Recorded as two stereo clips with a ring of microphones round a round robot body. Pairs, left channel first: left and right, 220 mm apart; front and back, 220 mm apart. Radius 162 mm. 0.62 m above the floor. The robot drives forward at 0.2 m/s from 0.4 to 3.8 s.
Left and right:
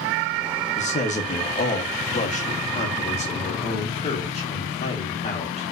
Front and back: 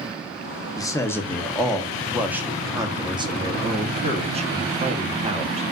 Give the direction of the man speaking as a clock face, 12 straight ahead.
10 o'clock.